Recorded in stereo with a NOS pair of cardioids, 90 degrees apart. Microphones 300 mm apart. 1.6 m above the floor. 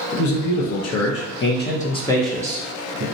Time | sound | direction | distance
0.1 | a man speaking | 65° left | 1.3 m